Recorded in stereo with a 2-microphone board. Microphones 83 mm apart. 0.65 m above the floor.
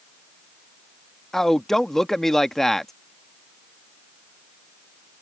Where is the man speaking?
5° left (ahead or behind).